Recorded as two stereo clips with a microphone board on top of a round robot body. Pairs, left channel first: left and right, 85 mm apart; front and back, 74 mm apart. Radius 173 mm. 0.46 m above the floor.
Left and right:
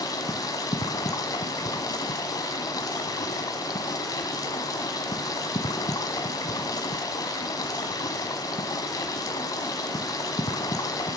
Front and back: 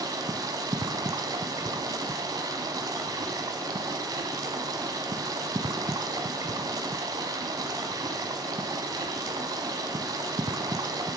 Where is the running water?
140° left, 0.8 m.